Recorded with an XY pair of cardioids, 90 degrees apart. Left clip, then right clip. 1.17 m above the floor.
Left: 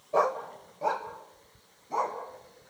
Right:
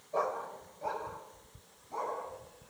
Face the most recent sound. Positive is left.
turn(degrees=70)